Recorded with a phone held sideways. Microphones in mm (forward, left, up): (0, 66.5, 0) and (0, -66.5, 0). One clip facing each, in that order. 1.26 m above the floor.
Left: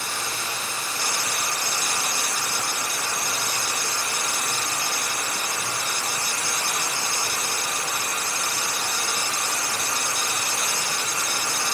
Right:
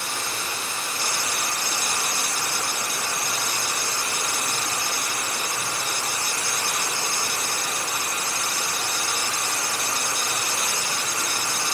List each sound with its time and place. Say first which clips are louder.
0.0 s running water: even; 60° right (ahead or behind), 0.9 m